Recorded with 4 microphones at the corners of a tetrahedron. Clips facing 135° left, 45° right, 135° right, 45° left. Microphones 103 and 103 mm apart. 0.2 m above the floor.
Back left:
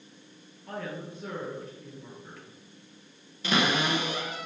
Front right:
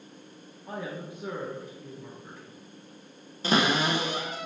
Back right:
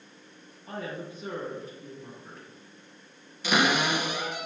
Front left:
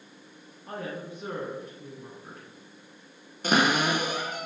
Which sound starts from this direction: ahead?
A cupboard door, at 3.4 s.